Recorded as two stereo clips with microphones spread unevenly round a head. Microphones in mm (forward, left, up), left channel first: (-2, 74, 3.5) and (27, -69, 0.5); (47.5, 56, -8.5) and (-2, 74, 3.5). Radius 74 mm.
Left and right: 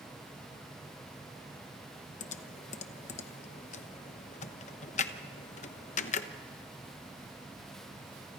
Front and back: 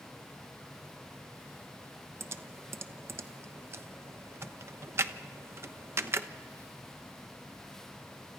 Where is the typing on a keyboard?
125° left, 1.0 m.